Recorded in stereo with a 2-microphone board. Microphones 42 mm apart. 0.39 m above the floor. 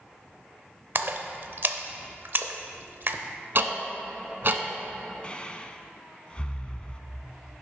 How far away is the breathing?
About 0.6 m.